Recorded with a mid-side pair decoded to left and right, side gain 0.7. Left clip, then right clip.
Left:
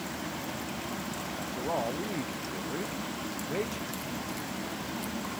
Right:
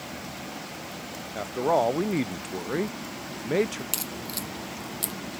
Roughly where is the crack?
Ahead right.